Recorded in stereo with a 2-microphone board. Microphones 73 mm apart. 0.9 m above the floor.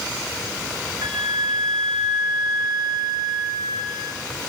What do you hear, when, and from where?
1.0 s a flute: 65° right (ahead or behind), 1.0 m